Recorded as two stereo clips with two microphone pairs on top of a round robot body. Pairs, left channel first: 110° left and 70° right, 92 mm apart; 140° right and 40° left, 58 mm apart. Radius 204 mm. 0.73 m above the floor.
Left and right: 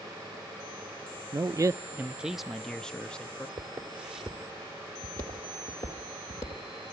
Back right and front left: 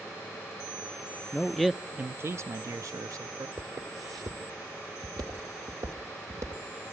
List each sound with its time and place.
1.3 s a man speaking: 95° right, 0.5 m; by 3.5 s 30° left, 1.0 m
3.6 s footsteps: straight ahead, 1.3 m; by 6.6 s 70° left, 2.5 m